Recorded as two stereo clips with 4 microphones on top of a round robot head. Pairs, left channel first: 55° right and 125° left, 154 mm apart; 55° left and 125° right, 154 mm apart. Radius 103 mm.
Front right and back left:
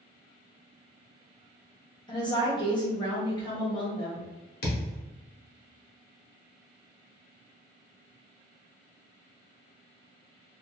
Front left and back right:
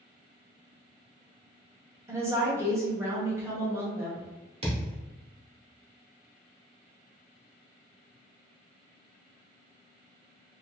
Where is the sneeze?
No sneeze in this recording.